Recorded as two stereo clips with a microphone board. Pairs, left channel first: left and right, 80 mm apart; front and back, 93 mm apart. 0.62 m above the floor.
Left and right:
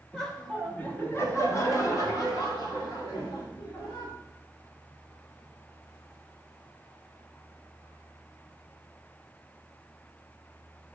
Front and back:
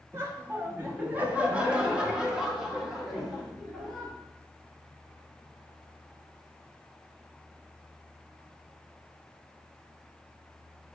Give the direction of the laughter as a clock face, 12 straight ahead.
6 o'clock.